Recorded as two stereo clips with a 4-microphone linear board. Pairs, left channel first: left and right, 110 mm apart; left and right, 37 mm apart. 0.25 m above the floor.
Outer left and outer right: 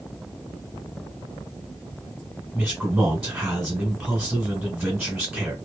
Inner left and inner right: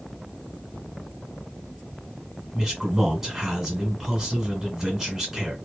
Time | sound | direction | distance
2.5 | a man speaking | 10° right (ahead or behind) | 1.5 m